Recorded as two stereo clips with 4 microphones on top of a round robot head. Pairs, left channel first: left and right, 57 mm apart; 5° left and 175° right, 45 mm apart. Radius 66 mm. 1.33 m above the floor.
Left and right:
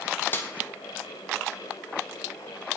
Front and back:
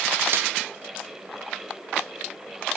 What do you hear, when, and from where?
0.3 s a snare drum: 150° left, 0.6 m